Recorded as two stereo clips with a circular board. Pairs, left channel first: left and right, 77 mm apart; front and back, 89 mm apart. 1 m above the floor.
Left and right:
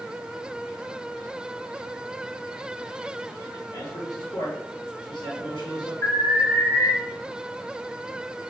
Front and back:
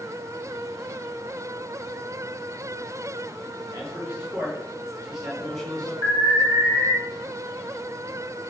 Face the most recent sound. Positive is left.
turn(degrees=140)